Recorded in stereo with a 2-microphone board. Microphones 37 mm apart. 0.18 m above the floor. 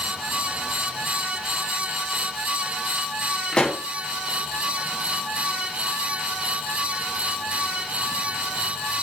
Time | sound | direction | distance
3.5 | a pop | 25° left (ahead or behind) | 1.7 m